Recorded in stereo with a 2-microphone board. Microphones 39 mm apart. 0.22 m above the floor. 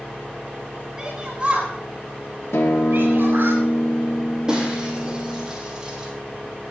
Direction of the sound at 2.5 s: 80° left.